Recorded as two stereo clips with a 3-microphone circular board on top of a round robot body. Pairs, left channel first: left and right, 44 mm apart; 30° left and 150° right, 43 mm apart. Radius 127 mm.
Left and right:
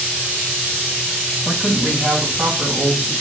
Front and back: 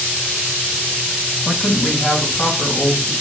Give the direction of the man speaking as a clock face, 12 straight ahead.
1 o'clock.